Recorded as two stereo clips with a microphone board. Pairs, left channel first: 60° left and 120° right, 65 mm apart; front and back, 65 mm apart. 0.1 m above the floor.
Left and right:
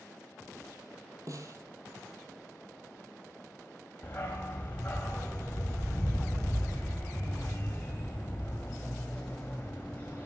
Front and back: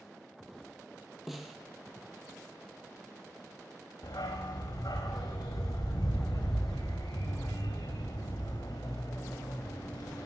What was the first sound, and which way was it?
A snare drum, 90° right.